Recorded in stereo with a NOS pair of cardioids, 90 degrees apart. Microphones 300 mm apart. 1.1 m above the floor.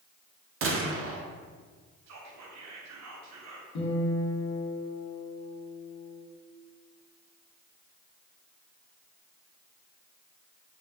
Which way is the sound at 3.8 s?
70° left.